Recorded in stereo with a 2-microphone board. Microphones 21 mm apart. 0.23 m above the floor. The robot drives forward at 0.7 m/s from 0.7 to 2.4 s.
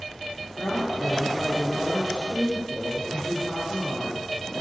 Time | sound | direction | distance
0.6 | a woman speaking | 70° left (ahead or behind) | 6 m